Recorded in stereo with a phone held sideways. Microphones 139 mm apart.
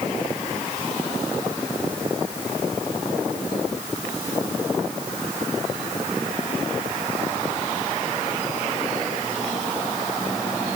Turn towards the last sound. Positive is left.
No sound to turn to.